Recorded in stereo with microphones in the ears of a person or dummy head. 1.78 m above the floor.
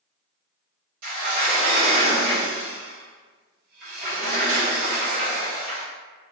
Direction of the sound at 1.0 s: 55° right (ahead or behind).